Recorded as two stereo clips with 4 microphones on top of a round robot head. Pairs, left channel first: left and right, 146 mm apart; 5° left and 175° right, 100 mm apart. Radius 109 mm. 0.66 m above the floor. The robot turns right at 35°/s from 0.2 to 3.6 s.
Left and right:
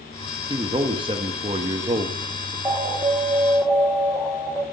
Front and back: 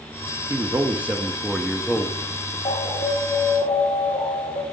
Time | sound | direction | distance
0.5 | a man speaking | 130° right | 1.0 m
2.6 | an alarm | 25° right | 2.5 m